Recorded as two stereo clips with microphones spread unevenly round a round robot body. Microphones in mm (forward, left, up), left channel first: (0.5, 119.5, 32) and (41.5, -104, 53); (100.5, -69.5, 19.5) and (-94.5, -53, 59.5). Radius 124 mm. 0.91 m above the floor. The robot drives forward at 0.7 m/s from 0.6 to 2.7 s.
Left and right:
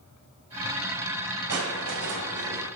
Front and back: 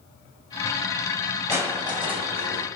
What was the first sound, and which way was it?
Crushing, 110° right.